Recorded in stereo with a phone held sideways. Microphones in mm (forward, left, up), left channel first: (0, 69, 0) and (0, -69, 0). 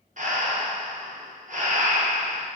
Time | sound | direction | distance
0.2 | breathing | 65° right (ahead or behind) | 0.6 m